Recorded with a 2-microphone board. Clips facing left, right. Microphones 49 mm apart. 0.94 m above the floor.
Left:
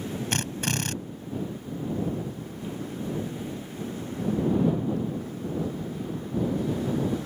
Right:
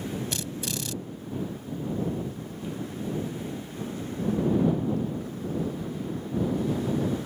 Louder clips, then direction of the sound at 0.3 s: Left 4 dB; 45° left (ahead or behind).